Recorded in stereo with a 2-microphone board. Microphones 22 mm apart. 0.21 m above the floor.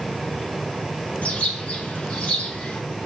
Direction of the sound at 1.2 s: 65° left (ahead or behind).